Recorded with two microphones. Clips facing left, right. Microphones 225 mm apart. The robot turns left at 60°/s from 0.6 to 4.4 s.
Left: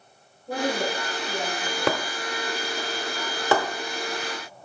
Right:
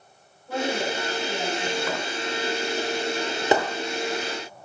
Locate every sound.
0.5 s a woman speaking: 40° left, 6.5 m; by 2.0 s 45° right, 6.5 m
1.9 s breaking glass: 75° left (ahead or behind), 1.2 m; by 3.7 s 30° right (ahead or behind), 1.2 m